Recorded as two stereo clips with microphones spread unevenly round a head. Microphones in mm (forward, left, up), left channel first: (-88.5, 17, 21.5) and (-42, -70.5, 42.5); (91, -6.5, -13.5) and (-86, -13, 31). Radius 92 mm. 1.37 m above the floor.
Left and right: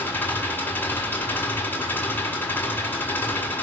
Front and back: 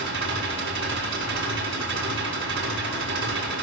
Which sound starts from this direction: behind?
An engine running, at 0.0 s.